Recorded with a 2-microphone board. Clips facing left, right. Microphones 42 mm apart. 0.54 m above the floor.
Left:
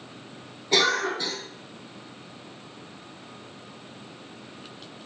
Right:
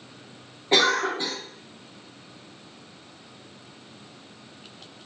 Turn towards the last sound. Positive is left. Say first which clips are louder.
# right 2 dB
turn(degrees=-30)  # may be behind; listen again after turning